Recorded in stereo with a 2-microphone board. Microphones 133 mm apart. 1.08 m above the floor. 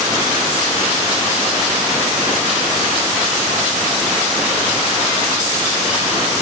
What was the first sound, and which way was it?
Only background noise.